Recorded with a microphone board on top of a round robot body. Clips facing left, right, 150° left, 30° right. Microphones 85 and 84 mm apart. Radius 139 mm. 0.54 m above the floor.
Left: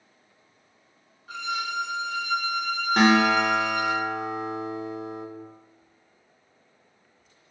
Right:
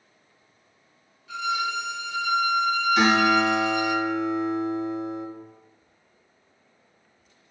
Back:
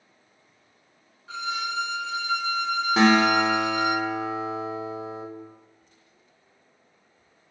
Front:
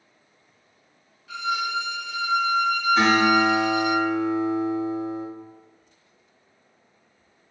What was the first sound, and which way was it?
A violin, 110° left.